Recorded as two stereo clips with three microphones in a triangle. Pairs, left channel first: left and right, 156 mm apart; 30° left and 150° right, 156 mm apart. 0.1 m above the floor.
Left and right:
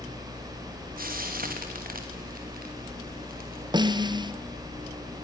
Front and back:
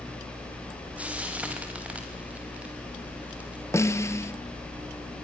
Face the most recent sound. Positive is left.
turn(degrees=-40)